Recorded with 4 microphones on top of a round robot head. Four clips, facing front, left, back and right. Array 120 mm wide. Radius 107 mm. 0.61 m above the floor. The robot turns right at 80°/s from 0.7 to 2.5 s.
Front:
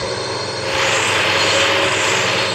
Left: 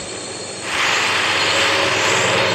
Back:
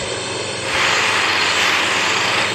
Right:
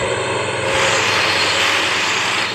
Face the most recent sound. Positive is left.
turn(degrees=80)